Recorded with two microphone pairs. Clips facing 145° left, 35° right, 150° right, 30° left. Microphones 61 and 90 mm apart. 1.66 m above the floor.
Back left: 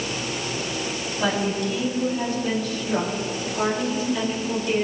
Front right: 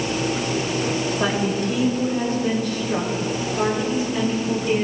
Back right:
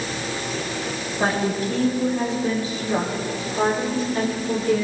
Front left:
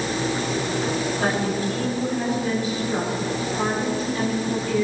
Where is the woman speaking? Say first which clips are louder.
Back left 2 dB, back right 5 dB; 85° right, 7 m; by 4.8 s 105° right, 8 m.